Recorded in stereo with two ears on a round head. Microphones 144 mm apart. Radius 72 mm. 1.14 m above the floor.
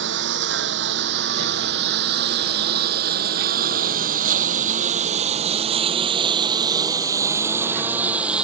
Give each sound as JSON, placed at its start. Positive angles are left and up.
{"t": 0.0, "sound": "a lawn mower", "side_deg": -85}